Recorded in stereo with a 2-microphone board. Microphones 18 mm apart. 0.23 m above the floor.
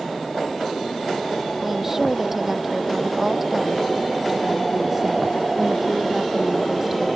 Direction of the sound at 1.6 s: 20° right (ahead or behind).